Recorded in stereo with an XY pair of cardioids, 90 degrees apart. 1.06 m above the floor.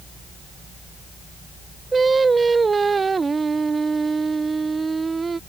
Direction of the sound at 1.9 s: 35° right.